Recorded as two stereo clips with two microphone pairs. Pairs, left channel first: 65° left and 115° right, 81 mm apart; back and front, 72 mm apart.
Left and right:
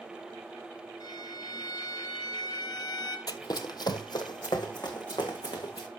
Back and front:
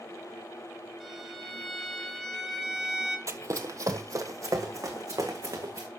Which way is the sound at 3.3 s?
35° left.